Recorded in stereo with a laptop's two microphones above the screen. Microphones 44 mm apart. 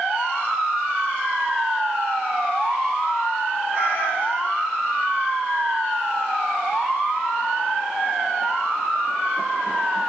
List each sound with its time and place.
3.7 s a cat meowing: 35° right (ahead or behind), 4 m